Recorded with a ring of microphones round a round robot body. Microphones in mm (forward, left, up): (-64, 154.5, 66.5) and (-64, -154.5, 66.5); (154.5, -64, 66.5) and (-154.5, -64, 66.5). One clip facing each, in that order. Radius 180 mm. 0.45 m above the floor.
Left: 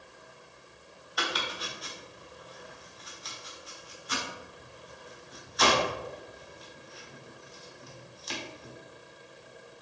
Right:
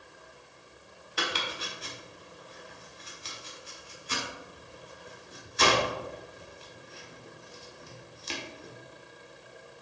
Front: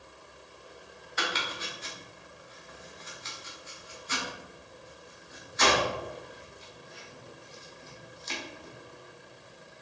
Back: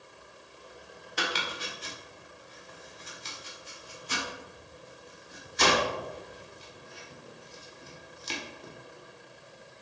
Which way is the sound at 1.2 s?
140° right.